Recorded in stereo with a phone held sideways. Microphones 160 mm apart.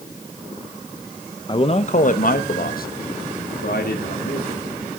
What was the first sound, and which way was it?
A man speaking, 30° left (ahead or behind).